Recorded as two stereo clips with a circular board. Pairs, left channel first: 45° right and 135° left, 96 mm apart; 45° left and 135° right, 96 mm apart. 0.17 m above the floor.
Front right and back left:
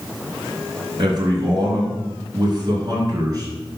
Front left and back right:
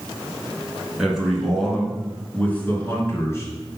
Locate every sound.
1.0 s a man speaking: 145° left, 2.5 m; by 3.8 s 95° left, 3 m